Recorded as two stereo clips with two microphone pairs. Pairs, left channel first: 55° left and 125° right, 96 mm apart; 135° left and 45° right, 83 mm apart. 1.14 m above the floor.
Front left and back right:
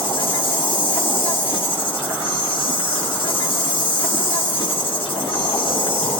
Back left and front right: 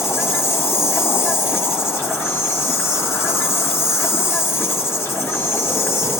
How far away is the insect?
About 1.7 m.